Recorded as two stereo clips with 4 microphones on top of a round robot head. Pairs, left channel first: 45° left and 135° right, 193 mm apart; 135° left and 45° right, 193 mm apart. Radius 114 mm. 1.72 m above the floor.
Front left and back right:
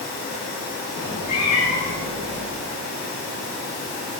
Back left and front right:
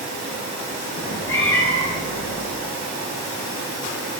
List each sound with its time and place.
1.0 s a cat meowing: 105° left, 7.5 m